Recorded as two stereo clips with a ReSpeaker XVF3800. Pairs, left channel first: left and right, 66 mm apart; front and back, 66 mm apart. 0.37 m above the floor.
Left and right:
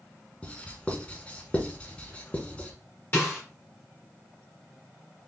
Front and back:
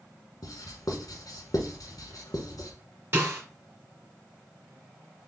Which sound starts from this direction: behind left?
A snare drum, at 3.1 s.